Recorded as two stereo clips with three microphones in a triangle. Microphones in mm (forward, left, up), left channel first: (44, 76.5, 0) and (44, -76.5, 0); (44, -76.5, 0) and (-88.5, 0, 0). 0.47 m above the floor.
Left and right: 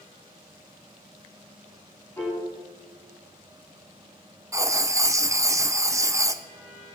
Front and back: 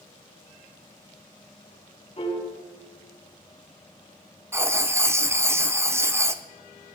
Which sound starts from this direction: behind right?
Writing, at 4.5 s.